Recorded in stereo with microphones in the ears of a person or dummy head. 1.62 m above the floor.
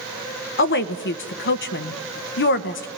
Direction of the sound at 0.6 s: 60° left (ahead or behind).